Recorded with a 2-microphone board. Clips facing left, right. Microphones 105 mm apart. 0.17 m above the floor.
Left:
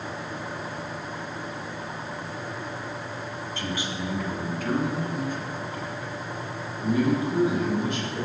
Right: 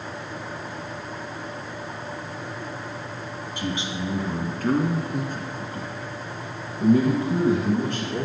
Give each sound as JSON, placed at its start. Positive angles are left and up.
{"t": 3.6, "sound": "a man speaking", "side_deg": -15, "distance_m": 1.4}